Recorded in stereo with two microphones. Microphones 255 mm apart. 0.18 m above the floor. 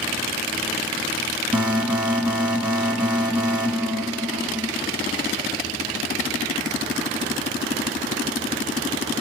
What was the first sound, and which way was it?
An alarm, 5° right (ahead or behind).